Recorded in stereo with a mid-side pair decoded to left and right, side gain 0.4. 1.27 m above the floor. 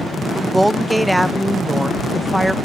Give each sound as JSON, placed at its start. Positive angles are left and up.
{"t": 0.3, "sound": "a woman speaking", "azimuth_deg": -5}